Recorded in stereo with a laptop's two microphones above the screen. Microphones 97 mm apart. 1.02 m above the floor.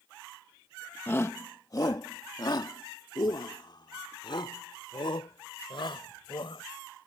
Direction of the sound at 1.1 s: 25° left (ahead or behind).